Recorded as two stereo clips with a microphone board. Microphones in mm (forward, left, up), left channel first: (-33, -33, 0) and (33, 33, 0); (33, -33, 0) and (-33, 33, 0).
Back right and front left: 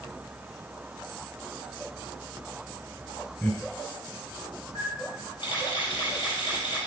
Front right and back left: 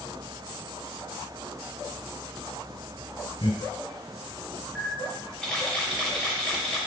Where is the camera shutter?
125° right, 3 m.